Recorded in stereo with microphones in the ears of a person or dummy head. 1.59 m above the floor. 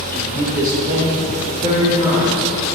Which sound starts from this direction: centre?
A man speaking, at 0.1 s.